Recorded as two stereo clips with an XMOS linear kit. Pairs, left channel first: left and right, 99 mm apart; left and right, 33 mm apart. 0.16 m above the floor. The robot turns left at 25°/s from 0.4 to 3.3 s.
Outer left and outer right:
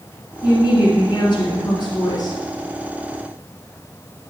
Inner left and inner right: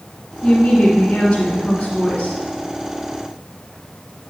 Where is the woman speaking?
110° left, 2 m; by 2.4 s 60° left, 2 m.